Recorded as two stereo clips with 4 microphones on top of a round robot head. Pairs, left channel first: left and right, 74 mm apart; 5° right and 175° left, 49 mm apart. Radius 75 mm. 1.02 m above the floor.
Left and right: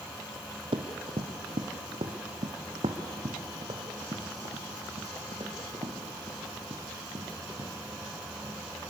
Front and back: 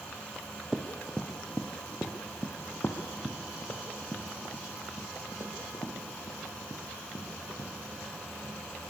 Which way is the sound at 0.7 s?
105° right.